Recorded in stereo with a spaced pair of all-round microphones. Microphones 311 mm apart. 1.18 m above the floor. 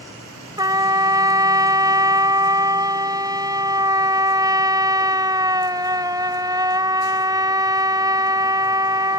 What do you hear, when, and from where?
0.6 s a trumpet: 10° right (ahead or behind)